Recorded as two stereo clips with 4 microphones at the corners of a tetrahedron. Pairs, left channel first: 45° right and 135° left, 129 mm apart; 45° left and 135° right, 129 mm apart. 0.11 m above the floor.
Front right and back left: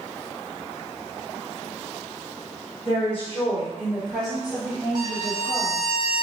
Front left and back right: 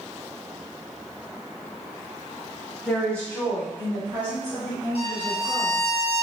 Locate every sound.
2.9 s a woman speaking: 20° right, 1.5 m; by 5.9 s 115° left, 1.7 m
5.0 s a violin: 80° left, 0.8 m